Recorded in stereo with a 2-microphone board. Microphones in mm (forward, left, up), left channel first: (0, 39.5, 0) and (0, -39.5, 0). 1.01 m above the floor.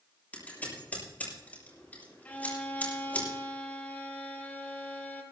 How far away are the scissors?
About 6.5 m.